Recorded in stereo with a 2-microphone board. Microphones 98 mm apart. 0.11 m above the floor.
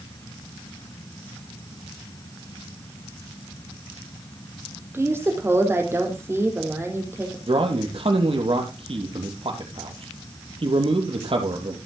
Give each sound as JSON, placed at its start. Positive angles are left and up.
{"t": 4.9, "sound": "a woman speaking", "side_deg": -25, "distance_m": 4.0}
{"t": 7.5, "sound": "a man speaking", "side_deg": -65, "distance_m": 2.5}